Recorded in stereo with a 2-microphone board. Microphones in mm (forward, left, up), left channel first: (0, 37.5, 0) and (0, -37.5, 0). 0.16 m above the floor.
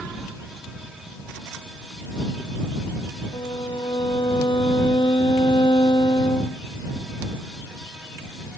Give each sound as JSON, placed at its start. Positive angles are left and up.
{"t": 3.3, "sound": "a violin", "side_deg": 80}